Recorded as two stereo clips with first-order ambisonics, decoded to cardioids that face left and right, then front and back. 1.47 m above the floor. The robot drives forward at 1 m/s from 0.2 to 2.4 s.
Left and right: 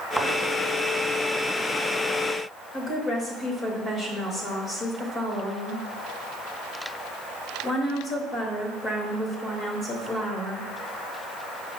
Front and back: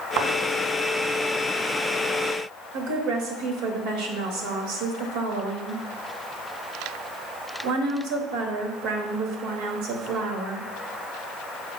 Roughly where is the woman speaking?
Behind.